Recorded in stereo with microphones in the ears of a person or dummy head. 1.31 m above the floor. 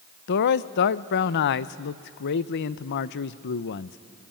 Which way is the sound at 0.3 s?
55° left (ahead or behind).